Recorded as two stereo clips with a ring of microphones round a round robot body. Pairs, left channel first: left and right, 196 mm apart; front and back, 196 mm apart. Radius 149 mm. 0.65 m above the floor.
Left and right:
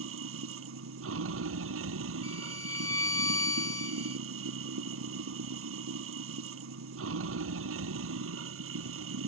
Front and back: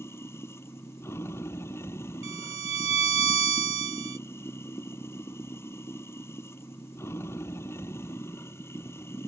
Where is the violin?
165° left.